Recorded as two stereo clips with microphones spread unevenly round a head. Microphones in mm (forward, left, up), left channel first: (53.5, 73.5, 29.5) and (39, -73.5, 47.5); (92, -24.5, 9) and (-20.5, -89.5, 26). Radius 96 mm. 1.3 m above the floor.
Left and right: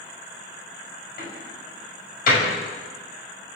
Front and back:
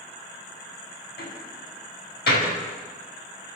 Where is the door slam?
60° left, 6 m.